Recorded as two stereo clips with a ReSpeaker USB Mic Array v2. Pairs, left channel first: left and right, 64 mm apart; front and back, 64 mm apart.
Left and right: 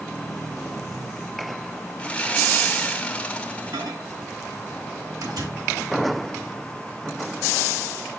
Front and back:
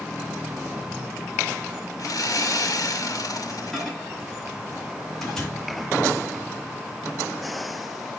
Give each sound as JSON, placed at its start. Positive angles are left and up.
{"t": 2.0, "sound": "sawing", "azimuth_deg": 20, "distance_m": 2.0}
{"t": 3.7, "sound": "a microwave", "azimuth_deg": -85, "distance_m": 9.0}